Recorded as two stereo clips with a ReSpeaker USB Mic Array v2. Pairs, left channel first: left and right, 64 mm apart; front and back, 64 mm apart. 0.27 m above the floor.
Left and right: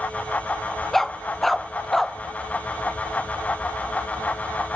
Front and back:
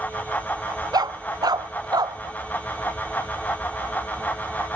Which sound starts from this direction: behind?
A dog barking, at 0.9 s.